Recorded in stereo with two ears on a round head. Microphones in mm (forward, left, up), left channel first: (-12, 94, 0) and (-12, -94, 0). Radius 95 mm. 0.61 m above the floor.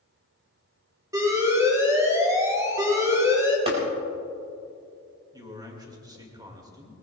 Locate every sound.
1.1 s an alarm: 15° right (ahead or behind), 3.5 m
3.7 s tapping: 30° right (ahead or behind), 4 m
5.3 s a man speaking: 20° right (ahead or behind), 2 m